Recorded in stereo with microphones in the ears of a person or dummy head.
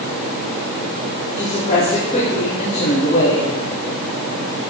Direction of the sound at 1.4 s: 35° left (ahead or behind).